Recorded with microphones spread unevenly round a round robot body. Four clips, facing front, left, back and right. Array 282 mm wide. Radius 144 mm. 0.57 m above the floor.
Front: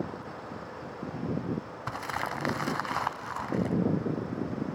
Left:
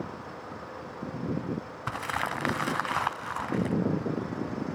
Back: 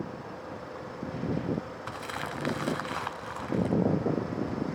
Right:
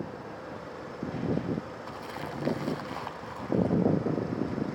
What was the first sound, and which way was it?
Crumpling, 60° left.